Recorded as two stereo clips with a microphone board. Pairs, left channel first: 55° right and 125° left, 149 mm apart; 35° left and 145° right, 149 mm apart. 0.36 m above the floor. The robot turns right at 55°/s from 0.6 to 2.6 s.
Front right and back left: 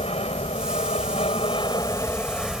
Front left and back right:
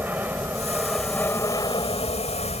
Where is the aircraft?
70° right; by 2.6 s 40° left.